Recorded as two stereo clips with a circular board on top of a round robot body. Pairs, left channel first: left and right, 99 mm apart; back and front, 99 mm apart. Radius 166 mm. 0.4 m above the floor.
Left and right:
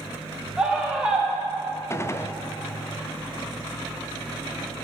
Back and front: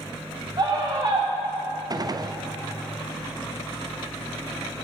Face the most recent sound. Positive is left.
turn(degrees=35)